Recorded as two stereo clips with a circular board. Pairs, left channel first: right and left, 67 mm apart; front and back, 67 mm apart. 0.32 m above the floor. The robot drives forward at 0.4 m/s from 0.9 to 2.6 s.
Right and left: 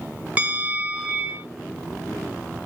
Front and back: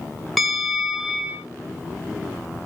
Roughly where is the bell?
Left.